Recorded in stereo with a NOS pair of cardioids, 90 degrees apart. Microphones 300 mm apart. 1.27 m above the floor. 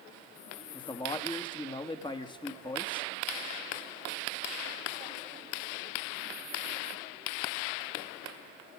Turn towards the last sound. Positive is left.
turn(degrees=15)